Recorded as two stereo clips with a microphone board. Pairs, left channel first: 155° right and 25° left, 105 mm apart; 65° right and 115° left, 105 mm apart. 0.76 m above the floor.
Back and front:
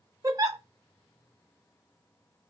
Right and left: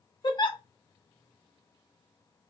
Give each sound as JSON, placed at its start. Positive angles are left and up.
{"t": 0.2, "sound": "a giggle", "azimuth_deg": -30, "distance_m": 0.6}